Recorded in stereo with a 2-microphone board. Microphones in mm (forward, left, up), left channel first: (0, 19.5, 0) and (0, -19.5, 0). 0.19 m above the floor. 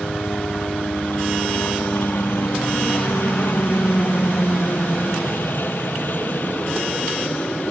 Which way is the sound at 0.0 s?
65° left (ahead or behind).